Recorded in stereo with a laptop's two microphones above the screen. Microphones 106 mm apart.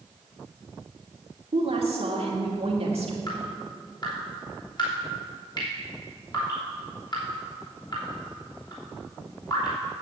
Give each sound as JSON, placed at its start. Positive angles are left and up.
{"t": 1.5, "sound": "a woman speaking", "side_deg": -70, "distance_m": 2.0}
{"t": 3.3, "sound": "dripping", "side_deg": 45, "distance_m": 3.0}